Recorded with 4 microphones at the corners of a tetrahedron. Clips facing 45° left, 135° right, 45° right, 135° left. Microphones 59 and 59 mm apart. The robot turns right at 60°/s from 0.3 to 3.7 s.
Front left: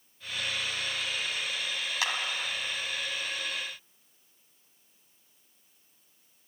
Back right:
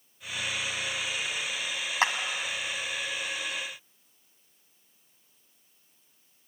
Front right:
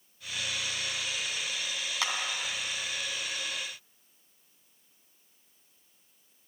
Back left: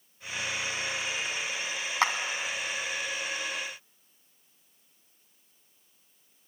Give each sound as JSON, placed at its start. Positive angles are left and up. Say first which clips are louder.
{"t": 2.0, "sound": "a clap", "louder": "back right 6 dB, back left 7 dB", "azimuth_deg": 175, "distance_m": 1.9}